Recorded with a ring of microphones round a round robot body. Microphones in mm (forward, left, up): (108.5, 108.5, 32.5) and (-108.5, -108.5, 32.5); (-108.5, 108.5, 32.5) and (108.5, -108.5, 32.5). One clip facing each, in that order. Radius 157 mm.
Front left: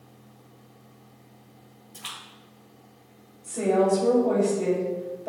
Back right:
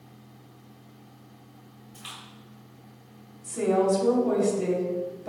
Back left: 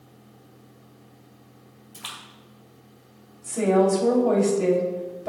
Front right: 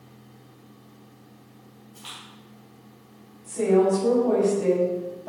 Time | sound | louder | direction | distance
1.9 | a splash | back right 2 dB, front right 1 dB | 120° left | 2 m
3.4 | a woman speaking | front left 1 dB, even | 155° left | 3 m